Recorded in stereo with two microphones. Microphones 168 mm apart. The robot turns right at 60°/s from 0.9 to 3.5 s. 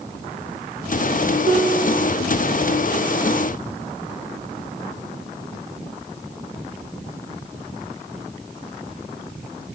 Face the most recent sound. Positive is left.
turn(degrees=10)